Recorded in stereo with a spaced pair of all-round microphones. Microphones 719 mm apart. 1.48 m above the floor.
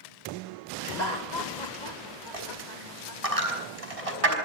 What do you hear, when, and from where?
0.8 s laughter: 70° left (ahead or behind), 2 m; by 3.3 s 80° left, 3.5 m
2.3 s a dropped coin: 50° right (ahead or behind), 5 m